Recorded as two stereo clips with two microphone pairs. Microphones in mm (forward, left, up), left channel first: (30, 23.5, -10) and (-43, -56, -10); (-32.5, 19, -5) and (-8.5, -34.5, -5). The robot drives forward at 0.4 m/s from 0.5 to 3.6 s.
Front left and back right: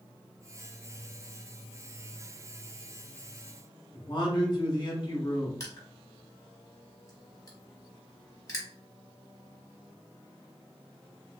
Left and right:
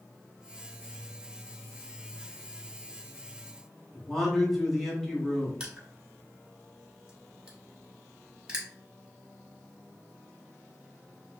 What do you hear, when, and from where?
3.9 s a man speaking: 30° left, 1.0 m
5.6 s crushing: 5° left, 1.2 m